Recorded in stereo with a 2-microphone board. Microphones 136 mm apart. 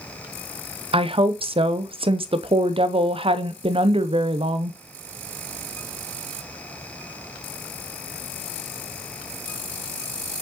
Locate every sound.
0.9 s a woman speaking: 40° right (ahead or behind), 0.6 m